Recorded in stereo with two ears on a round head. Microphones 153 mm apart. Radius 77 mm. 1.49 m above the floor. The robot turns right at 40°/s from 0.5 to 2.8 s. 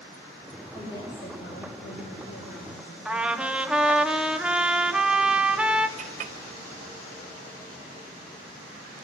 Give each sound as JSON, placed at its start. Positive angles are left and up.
{"t": 0.7, "sound": "a woman speaking", "azimuth_deg": 20, "distance_m": 5.0}
{"t": 3.0, "sound": "a trumpet", "side_deg": -5, "distance_m": 1.4}
{"t": 6.0, "sound": "a clink", "side_deg": -45, "distance_m": 1.0}